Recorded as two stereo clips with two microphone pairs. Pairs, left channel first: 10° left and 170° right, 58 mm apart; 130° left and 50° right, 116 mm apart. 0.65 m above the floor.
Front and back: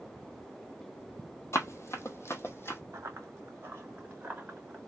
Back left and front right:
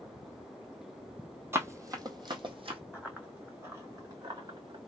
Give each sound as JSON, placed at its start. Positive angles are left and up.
{"t": 1.5, "sound": "running footsteps", "azimuth_deg": 10, "distance_m": 1.0}
{"t": 2.9, "sound": "running footsteps", "azimuth_deg": -135, "distance_m": 2.0}